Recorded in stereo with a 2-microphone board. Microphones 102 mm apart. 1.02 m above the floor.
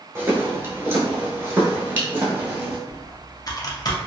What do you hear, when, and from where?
0.1 s footsteps: 25° right (ahead or behind), 1.1 m; by 2.8 s 15° right (ahead or behind), 1.4 m
2.9 s typing on a keyboard: 40° left (ahead or behind), 0.6 m